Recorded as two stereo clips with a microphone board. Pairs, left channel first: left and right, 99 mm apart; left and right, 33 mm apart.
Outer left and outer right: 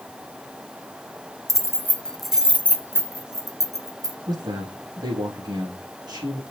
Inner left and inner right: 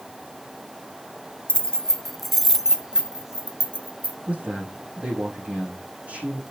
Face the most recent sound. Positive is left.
turn(degrees=-40)  # may be behind; listen again after turning